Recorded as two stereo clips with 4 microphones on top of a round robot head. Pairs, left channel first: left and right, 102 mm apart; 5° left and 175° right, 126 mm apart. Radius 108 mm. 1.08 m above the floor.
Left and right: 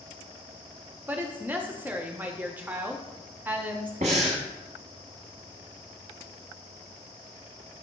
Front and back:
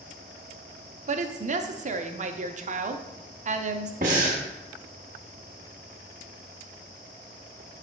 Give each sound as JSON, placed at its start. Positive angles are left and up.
{"t": 1.1, "sound": "a woman speaking", "azimuth_deg": -165, "distance_m": 0.7}
{"t": 4.0, "sound": "breathing", "azimuth_deg": -130, "distance_m": 0.9}